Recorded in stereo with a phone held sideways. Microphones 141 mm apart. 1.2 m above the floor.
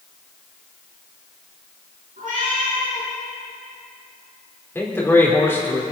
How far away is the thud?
I don't hear a thud.